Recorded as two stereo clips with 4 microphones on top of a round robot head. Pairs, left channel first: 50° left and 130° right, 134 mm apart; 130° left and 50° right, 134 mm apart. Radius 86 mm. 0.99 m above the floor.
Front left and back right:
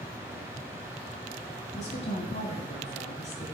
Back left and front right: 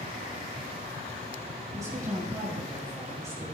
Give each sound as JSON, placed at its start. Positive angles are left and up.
{"t": 1.8, "sound": "a woman speaking", "azimuth_deg": 15, "distance_m": 6.0}